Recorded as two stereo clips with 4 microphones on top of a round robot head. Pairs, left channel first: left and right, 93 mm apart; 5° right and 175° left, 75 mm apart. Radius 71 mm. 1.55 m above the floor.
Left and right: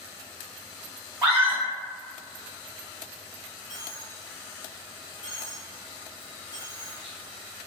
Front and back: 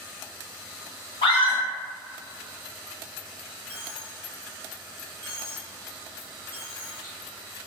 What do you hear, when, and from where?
1.2 s a scream: 10° right, 1.5 m
3.7 s a dropped coin: 55° left, 1.6 m